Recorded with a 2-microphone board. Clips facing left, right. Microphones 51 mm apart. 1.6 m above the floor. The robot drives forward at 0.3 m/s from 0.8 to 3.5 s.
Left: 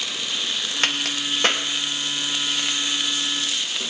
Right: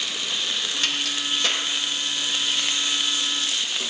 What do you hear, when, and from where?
0.8 s a crack: 50° left (ahead or behind), 1.4 m; by 1.6 s 45° left (ahead or behind), 1.5 m